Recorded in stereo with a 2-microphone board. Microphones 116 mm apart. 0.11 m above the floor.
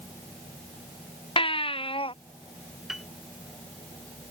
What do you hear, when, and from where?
1.4 s a baby crying: 50° left (ahead or behind)
2.9 s a piano: 5° right (ahead or behind)